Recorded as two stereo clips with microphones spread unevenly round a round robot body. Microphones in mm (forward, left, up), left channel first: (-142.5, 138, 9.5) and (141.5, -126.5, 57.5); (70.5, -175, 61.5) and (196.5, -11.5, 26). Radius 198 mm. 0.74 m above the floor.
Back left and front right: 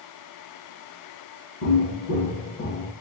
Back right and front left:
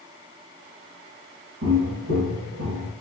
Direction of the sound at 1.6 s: 95° left.